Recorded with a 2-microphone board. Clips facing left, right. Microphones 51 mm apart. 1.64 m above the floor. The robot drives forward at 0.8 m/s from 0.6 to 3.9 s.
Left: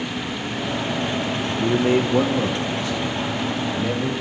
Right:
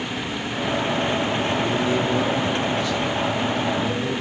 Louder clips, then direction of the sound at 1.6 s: Left 3 dB; 45° left (ahead or behind).